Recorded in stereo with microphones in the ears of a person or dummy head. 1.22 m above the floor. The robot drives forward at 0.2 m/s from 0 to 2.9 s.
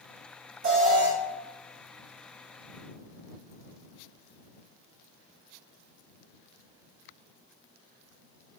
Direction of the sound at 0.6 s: 40° right (ahead or behind).